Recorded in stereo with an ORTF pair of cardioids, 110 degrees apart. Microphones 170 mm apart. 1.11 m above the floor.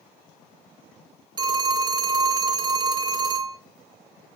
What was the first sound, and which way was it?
A phone ringing, 25° right.